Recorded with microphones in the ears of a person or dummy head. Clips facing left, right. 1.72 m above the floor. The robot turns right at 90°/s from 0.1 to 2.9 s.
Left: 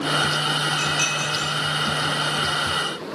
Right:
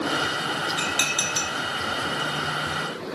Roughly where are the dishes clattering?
Centre.